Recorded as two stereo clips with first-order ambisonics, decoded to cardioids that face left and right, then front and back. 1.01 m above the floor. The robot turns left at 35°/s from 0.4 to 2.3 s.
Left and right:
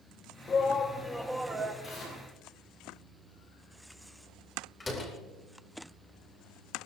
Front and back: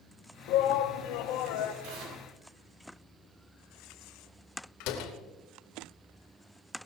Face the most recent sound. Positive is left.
turn(degrees=15)